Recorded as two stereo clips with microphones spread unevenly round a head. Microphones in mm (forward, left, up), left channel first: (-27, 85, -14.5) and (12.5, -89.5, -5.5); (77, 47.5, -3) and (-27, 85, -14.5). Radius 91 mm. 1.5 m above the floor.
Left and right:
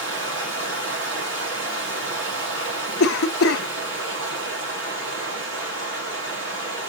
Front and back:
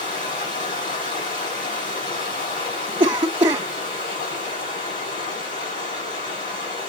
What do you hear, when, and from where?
0.0 s running water: 50° right, 3.5 m
3.0 s a cough: 115° left, 0.8 m